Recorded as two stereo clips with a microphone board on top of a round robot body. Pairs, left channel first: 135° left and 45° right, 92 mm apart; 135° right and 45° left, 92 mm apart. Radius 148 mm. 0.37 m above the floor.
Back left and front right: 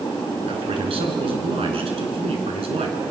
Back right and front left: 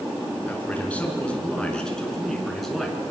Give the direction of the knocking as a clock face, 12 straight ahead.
No knocking in this recording.